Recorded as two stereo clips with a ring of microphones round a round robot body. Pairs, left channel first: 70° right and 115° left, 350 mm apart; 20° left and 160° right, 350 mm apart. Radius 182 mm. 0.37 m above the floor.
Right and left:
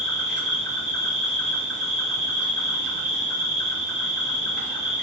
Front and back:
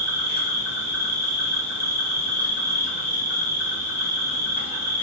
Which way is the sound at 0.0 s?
50° left.